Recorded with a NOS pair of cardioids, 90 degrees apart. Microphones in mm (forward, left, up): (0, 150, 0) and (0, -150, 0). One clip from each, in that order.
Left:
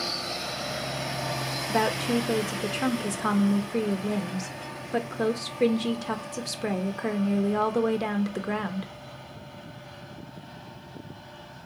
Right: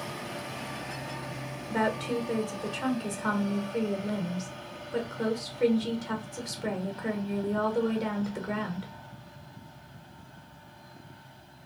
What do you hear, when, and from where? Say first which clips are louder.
1.7 s a woman speaking: left 3 dB; 30° left, 0.6 m